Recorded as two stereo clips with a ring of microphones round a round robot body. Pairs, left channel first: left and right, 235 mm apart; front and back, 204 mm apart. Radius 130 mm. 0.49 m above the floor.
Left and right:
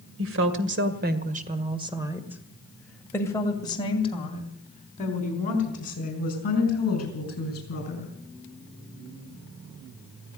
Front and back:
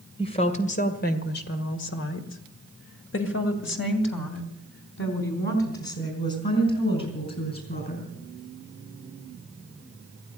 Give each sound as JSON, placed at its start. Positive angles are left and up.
{"t": 0.2, "sound": "a woman speaking", "azimuth_deg": -65, "distance_m": 2.0}